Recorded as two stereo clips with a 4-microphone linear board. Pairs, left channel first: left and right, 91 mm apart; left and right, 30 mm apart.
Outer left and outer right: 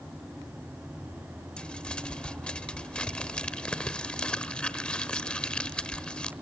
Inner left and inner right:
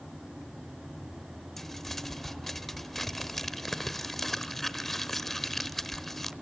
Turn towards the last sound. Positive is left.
turn(degrees=10)  # may be behind; listen again after turning